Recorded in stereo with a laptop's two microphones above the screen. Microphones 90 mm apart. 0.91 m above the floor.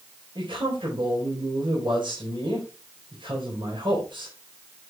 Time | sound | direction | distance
0.3 | a man speaking | 65° right (ahead or behind) | 4 m